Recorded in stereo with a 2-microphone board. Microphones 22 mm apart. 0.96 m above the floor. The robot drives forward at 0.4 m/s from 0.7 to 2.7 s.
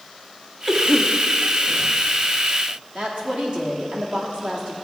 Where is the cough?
35° right (ahead or behind), 1.2 m; by 1.9 s 55° right (ahead or behind), 0.9 m.